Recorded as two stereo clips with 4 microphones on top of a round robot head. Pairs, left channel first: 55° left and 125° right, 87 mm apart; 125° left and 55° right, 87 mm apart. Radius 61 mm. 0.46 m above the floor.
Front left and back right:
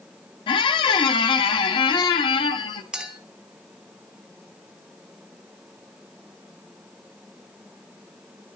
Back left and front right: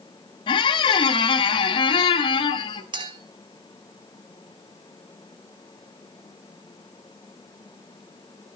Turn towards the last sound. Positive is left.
turn(degrees=-45)